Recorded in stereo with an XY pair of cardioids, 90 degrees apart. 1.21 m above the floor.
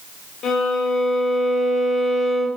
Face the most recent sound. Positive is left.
turn(degrees=70)